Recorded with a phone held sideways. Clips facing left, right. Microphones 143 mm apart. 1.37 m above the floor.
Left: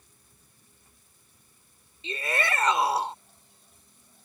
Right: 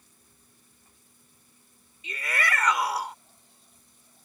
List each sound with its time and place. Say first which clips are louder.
2.0 s a shout: left 2 dB; 25° left (ahead or behind)